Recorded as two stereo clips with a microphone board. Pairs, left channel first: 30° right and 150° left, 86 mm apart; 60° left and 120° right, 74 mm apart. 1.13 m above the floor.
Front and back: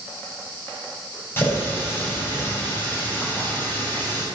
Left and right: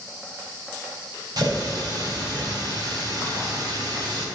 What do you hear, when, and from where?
1.4 s a running tap: 95° right, 3.5 m